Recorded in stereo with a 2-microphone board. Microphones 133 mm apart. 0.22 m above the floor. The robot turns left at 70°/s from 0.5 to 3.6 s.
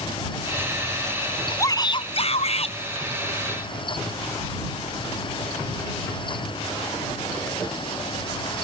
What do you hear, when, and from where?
1.6 s a shout: 155° left; by 2.8 s 70° left